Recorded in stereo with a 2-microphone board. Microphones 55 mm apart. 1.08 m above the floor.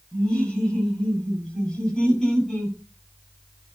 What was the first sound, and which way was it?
Laughter, 15° left (ahead or behind).